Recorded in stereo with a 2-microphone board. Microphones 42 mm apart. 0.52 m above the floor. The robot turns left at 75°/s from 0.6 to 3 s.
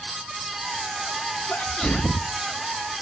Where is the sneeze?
25° left (ahead or behind), 0.7 m; by 2.4 s 5° right (ahead or behind), 0.7 m.